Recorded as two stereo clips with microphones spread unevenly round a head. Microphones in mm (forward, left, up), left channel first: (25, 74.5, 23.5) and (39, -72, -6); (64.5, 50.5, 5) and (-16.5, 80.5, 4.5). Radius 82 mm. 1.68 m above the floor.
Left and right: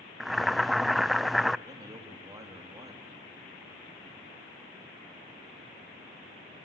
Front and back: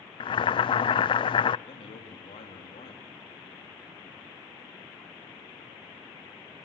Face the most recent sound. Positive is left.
turn(degrees=-15)